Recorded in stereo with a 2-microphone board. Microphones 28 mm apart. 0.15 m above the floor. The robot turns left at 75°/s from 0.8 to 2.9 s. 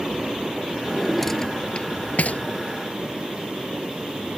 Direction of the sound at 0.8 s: 20° right (ahead or behind).